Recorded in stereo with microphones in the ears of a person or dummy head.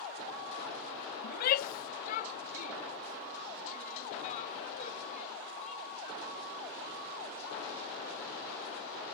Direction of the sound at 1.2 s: 60° left (ahead or behind).